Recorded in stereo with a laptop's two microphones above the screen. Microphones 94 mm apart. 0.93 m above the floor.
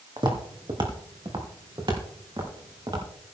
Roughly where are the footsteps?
Right.